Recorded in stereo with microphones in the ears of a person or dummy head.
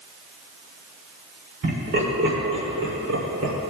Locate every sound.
1.6 s laughter: 55° right (ahead or behind), 4 m; by 3.5 s 80° right, 3 m